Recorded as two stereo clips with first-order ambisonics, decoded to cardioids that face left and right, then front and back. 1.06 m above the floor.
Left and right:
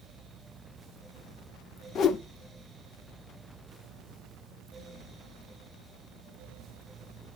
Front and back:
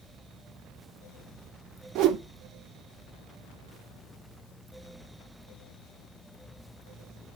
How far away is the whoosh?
About 0.6 m.